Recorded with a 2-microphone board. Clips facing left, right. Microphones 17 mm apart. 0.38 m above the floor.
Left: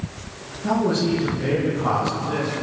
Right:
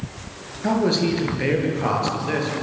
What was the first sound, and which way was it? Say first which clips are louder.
A man speaking: right 1 dB; 60° right (ahead or behind).